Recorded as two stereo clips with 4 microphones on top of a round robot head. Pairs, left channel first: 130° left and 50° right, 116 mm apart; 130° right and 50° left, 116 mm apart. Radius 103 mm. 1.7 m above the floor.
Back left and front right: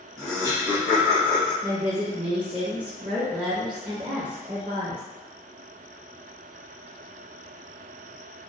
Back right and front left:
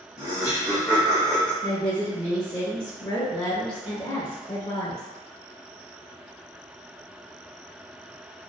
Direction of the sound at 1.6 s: 80° right.